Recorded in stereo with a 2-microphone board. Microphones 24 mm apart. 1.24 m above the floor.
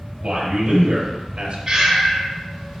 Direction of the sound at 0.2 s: 50° right (ahead or behind).